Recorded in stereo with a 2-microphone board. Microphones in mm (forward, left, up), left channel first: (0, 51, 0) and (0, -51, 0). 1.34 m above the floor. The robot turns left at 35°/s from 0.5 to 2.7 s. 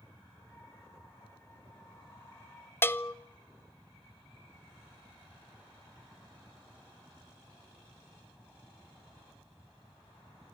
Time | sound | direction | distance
2.8 | a bell | 20° left (ahead or behind) | 0.7 m